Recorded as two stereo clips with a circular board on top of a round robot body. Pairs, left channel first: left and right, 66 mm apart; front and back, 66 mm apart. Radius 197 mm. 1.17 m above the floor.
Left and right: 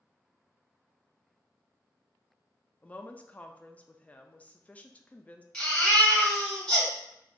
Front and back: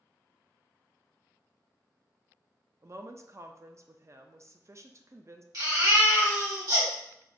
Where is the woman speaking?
155° left, 0.6 m.